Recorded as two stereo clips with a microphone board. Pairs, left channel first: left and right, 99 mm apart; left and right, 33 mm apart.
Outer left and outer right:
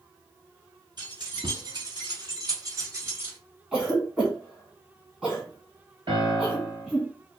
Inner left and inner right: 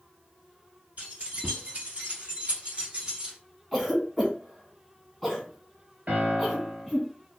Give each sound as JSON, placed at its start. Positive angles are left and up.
{"t": 1.0, "sound": "keys jangling", "side_deg": -50, "distance_m": 1.5}
{"t": 3.7, "sound": "a cough", "side_deg": -10, "distance_m": 1.8}
{"t": 6.1, "sound": "a piano", "side_deg": -60, "distance_m": 1.1}